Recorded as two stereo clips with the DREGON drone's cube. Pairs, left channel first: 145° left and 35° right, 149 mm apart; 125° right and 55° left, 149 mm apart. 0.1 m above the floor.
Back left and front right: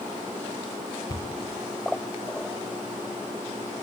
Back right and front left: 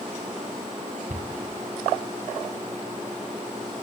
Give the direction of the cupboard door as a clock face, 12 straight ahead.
9 o'clock.